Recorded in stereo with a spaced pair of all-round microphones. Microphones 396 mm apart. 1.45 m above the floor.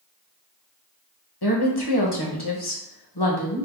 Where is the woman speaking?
75° left (ahead or behind), 1.0 m.